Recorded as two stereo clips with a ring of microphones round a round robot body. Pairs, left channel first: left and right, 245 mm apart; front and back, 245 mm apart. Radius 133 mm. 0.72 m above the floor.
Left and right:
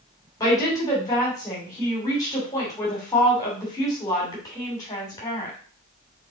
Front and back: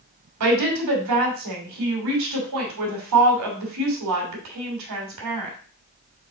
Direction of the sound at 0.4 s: 165° left.